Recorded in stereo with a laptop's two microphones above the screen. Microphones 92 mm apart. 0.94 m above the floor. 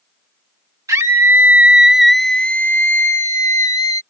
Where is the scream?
40° right (ahead or behind); by 4.0 s 45° left (ahead or behind).